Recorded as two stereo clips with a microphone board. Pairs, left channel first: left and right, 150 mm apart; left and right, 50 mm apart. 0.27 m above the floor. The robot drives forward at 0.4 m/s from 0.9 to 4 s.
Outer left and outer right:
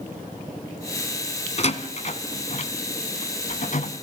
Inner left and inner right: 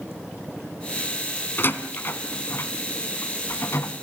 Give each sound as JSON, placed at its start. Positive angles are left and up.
{"t": 1.6, "sound": "a door slam", "side_deg": 50, "distance_m": 1.8}